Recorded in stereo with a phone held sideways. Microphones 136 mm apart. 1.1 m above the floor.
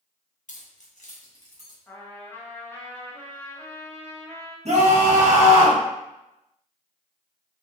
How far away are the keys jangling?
About 0.7 m.